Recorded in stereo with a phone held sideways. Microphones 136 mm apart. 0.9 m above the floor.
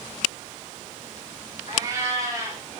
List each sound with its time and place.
1.7 s a cat meowing: 25° right (ahead or behind), 6 m